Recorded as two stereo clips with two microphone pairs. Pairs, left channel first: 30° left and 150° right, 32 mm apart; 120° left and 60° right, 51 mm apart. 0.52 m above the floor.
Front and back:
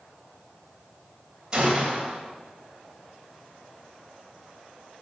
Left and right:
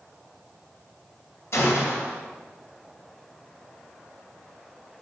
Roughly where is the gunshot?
Behind left.